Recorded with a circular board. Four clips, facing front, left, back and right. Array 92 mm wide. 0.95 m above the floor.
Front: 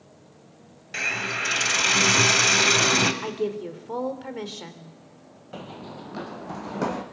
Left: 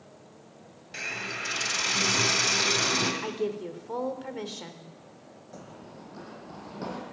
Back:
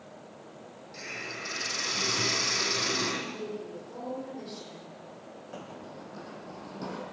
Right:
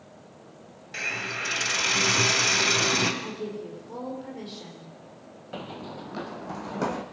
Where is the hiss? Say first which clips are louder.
Right 3 dB, front 11 dB; 15° right, 2 m.